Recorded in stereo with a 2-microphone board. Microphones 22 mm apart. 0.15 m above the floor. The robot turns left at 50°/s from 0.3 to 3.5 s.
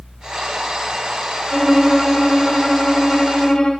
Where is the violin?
140° right, 7 m; by 3.7 s 115° left, 7 m.